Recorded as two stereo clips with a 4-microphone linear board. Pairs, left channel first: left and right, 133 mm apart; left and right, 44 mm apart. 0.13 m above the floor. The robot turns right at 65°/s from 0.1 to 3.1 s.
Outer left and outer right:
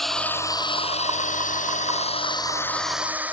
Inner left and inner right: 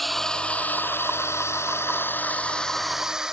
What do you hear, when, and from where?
0.0 s a drone: centre (ahead or behind); by 3.3 s 10° right (ahead or behind)